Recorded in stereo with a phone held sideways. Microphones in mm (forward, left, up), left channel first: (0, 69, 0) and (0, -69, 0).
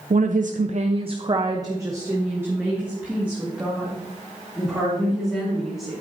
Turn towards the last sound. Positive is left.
turn(degrees=-5)  # may be behind; listen again after turning